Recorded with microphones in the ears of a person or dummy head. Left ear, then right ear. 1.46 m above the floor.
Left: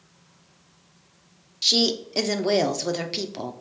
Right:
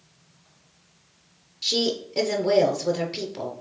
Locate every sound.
1.6 s a woman speaking: 30° left (ahead or behind), 0.5 m